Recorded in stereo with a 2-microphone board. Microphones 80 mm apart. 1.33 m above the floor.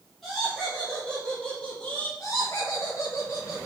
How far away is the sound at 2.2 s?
About 0.9 m.